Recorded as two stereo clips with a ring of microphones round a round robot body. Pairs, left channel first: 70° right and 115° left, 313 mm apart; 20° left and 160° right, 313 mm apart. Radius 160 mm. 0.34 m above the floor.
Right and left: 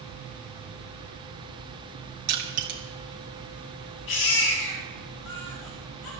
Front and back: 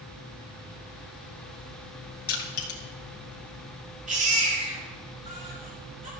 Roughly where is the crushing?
Left.